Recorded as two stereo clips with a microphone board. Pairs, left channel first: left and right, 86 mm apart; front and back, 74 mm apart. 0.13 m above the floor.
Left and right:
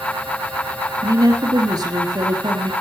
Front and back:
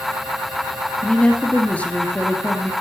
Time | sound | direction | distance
1.0 | a woman speaking | 70° right | 3 m